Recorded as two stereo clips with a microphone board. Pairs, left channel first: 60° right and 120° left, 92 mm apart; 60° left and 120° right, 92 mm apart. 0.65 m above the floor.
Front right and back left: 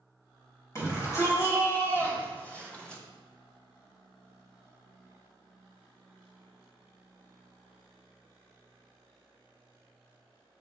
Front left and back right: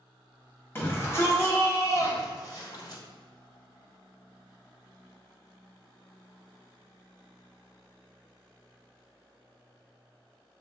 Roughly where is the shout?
Ahead.